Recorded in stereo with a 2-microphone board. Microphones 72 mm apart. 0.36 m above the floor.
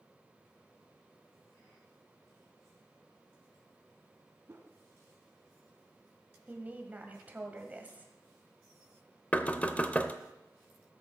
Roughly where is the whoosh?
Right.